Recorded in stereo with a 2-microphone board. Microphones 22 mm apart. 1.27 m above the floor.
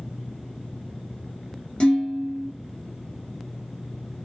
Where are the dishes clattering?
50° left (ahead or behind), 0.7 m.